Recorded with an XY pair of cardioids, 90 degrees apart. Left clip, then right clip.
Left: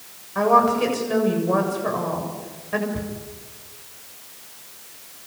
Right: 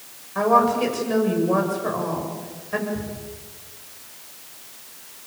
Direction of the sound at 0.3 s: 10° left.